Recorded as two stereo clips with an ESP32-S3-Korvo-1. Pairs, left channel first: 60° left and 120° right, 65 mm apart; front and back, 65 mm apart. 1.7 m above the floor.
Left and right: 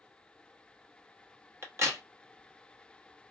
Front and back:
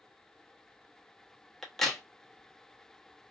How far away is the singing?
I don't hear singing.